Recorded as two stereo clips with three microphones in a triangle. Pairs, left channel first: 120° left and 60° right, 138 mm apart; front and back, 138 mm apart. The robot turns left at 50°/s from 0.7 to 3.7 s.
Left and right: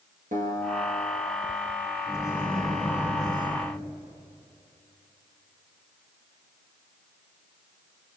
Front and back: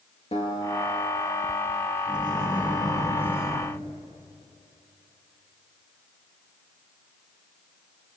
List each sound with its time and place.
0.3 s a guitar: 40° right, 5 m; by 1.9 s 100° right, 5 m
2.1 s a microwave: 165° right, 5 m; by 3.7 s 115° left, 5 m